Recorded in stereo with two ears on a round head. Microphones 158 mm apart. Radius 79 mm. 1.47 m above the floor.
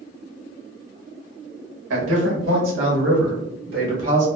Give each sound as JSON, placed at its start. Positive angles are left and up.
{"t": 1.9, "sound": "a man speaking", "side_deg": -80, "distance_m": 1.5}